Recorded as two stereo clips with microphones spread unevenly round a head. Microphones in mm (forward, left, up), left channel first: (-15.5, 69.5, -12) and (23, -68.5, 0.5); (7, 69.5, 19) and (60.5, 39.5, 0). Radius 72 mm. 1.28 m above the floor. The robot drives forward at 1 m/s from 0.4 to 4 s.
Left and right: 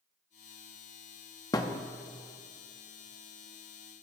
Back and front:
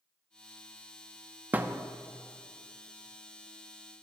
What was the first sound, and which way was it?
A thud, 40° left.